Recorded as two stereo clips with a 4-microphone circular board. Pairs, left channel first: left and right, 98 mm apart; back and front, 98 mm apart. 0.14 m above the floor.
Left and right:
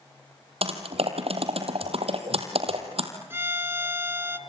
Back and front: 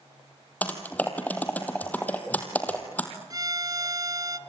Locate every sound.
0.6 s typing on a keyboard: 105° right, 3 m
3.3 s a violin: 35° right, 1.2 m